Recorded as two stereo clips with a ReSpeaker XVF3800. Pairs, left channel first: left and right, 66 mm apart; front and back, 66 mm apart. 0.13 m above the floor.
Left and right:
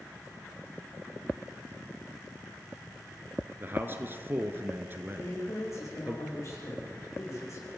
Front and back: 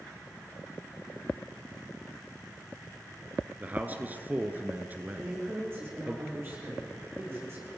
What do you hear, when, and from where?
3.6 s a man speaking: 130° right, 1.6 m
5.2 s a man speaking: 130° left, 9 m